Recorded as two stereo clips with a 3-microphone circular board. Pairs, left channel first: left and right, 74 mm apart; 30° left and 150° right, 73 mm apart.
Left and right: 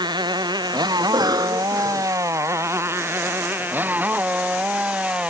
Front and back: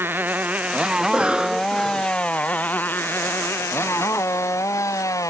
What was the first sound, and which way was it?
A motorcycle, 90° right.